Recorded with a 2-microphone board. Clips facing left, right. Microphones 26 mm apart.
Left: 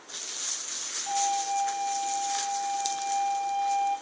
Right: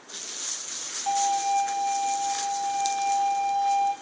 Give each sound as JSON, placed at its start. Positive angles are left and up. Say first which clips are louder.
{"t": 1.1, "sound": "a violin", "louder": "right 4 dB", "side_deg": -85, "distance_m": 8.5}